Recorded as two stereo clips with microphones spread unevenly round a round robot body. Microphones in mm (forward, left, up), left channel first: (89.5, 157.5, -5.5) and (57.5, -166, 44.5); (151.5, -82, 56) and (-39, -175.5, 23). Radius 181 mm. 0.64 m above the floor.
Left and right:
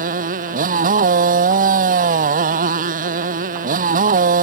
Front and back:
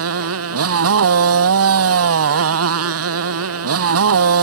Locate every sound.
0.0 s a motorcycle: 165° right